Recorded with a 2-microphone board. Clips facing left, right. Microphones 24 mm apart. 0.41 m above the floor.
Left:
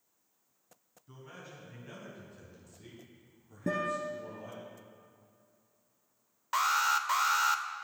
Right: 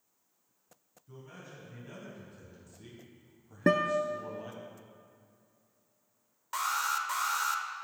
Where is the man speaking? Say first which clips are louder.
Even; 25° left (ahead or behind), 3.5 m; by 4.7 s 35° right (ahead or behind), 3.5 m.